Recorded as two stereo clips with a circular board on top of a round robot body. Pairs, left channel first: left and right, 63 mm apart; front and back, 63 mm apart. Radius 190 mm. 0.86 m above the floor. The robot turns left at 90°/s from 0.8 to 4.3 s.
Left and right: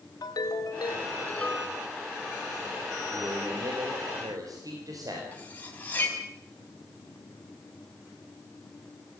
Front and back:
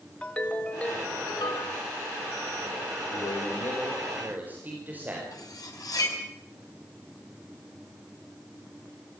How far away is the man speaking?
About 5 m.